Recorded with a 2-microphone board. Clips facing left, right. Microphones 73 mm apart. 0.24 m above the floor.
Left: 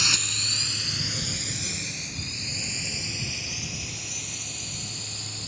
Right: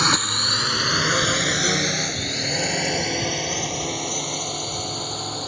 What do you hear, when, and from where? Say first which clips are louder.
0.0 s a drone: right 10 dB; 50° right (ahead or behind); by 5.5 s 55° right (ahead or behind)